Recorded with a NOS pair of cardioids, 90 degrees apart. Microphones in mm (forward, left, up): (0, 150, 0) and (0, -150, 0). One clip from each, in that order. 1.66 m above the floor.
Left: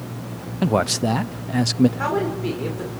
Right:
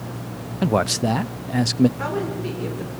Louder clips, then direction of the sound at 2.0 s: Left 3 dB; 25° left.